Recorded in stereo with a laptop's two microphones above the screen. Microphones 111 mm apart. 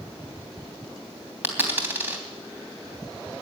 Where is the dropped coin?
20° right (ahead or behind), 3 m.